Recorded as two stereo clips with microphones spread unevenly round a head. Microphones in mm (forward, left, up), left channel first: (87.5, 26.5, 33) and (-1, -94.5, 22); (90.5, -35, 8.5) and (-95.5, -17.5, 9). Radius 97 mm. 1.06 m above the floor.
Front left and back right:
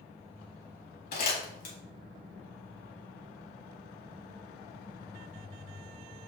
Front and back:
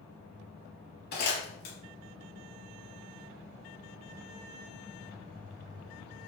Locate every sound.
1.1 s crumpling: 40° left, 5 m